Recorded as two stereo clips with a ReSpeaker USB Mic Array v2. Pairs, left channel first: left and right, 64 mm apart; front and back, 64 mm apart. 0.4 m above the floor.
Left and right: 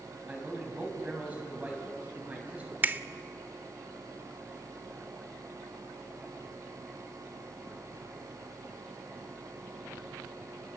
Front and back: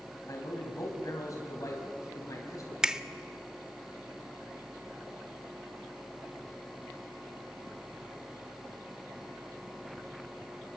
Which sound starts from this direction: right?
A finger snap, at 2.8 s.